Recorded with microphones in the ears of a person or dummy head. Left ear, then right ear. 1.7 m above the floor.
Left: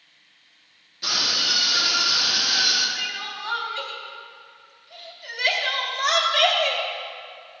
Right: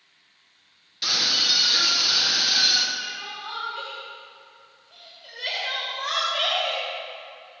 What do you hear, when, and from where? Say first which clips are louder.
1.0 s a scream: right 1 dB; 40° right (ahead or behind), 3.5 m
3.0 s crying: left 3 dB; 45° left (ahead or behind), 2.5 m